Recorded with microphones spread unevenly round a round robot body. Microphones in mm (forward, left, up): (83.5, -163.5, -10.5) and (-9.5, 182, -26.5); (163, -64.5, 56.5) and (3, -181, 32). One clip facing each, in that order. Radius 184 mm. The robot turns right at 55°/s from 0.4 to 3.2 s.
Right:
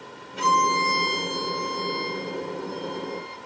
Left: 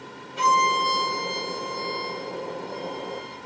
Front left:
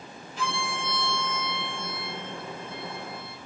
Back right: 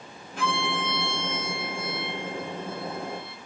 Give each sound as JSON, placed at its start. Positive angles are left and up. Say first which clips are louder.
{"t": 0.4, "sound": "a violin", "louder": "right 1 dB, back right 4 dB", "azimuth_deg": -170, "distance_m": 0.9}